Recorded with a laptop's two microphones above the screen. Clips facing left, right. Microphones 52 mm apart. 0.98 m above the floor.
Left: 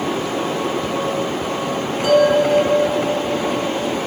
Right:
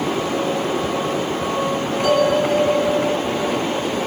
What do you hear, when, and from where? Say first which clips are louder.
2.0 s a bell: left 3 dB; 20° left (ahead or behind), 1.3 m